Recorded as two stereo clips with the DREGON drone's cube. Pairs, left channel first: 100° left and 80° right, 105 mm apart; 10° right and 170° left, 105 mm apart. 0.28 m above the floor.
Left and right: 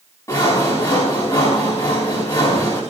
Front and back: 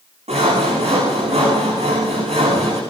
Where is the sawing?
160° left, 7.5 m.